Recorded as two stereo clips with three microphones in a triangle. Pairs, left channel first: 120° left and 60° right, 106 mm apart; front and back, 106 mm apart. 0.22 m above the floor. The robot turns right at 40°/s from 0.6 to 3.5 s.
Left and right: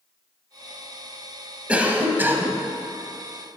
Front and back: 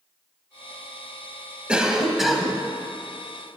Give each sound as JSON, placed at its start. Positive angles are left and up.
{"t": 1.7, "sound": "a cough", "azimuth_deg": -115, "distance_m": 1.0}